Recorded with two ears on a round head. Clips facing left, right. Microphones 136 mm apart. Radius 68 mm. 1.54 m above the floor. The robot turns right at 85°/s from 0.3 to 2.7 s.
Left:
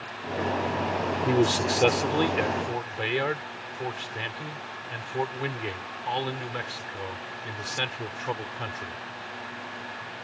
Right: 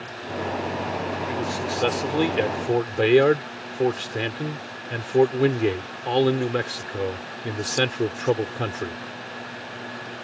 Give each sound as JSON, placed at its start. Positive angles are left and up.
{"t": 1.2, "sound": "a man speaking", "azimuth_deg": 120}